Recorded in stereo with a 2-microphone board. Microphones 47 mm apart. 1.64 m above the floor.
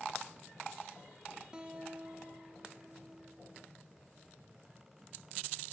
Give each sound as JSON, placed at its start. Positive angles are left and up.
{"t": 1.5, "sound": "a guitar", "side_deg": -20, "distance_m": 0.8}